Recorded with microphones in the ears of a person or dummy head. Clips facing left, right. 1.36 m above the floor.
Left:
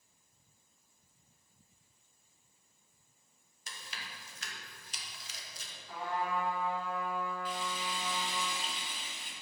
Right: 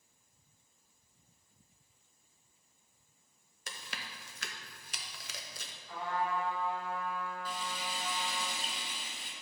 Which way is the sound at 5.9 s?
10° left (ahead or behind).